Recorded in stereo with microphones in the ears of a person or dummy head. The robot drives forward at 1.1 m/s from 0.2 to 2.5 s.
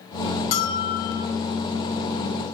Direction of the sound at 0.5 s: 50° left (ahead or behind).